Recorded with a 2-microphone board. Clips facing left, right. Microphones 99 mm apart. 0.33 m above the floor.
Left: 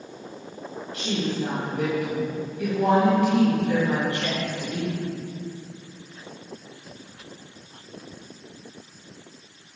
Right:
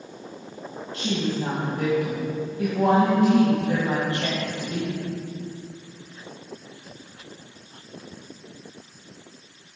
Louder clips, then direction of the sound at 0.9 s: Right 1 dB; 30° right (ahead or behind).